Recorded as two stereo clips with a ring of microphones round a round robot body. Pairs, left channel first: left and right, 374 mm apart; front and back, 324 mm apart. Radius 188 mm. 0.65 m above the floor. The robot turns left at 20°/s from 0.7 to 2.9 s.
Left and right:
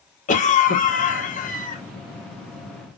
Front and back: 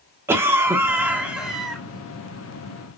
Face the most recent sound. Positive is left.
turn(degrees=65)